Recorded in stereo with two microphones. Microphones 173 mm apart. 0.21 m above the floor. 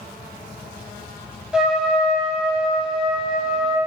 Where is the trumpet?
5° right (ahead or behind), 0.8 m.